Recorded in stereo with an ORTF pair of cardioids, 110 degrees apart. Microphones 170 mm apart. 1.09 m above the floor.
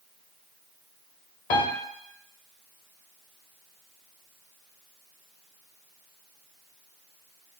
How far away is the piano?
About 0.8 m.